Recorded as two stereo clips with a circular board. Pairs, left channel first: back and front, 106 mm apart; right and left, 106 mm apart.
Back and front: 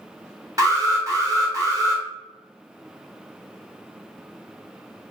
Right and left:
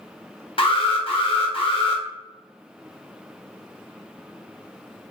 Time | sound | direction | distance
0.6 | an alarm | 60° right | 1.1 m